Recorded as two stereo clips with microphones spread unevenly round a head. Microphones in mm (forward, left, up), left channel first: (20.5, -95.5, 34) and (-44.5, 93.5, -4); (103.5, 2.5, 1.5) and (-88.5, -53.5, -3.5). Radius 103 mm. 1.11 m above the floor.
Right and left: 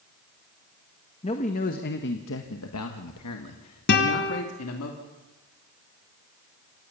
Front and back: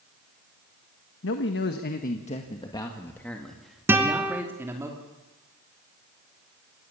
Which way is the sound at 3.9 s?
85° right.